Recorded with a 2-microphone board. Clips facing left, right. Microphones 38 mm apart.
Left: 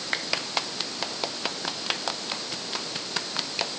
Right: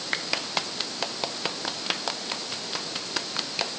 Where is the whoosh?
I don't hear a whoosh.